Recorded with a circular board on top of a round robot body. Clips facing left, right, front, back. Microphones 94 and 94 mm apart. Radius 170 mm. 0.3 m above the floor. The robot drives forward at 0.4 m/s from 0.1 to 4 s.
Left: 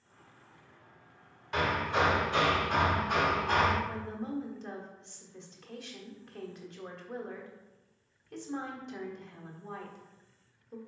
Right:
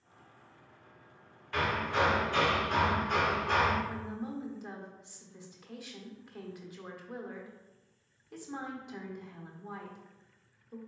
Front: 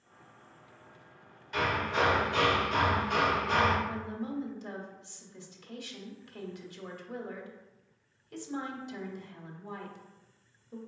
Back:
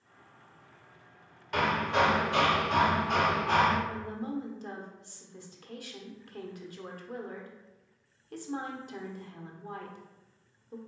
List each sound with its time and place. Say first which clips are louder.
1.5 s hammering: left 1 dB, back 3 dB; 160° left, 1.1 m; by 3.8 s 170° left, 1.9 m
3.9 s a woman speaking: left 1 dB, even; 170° right, 1.2 m; by 10.8 s 175° right, 1.2 m